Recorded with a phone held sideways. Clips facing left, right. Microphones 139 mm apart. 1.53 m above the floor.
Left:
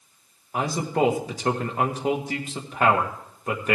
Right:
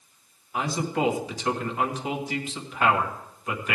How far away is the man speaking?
About 1.9 m.